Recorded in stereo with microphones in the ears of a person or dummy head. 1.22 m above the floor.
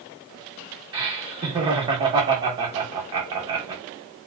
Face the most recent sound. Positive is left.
turn(degrees=-25)  # may be behind; listen again after turning